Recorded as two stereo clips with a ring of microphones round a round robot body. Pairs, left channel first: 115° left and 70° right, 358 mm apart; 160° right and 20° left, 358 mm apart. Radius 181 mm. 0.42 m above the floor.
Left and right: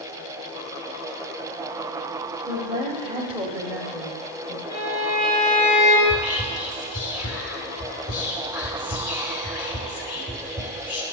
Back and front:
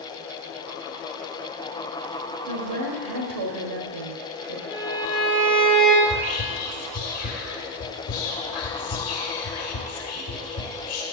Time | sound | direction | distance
2.5 | a woman speaking | 5° left | 1.9 m
4.7 | a violin | 60° left | 3 m
6.0 | whispering | 160° left | 1.5 m